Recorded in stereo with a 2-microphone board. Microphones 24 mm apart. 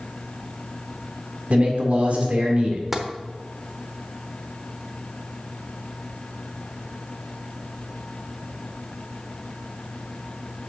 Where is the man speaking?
55° right (ahead or behind), 1.8 m.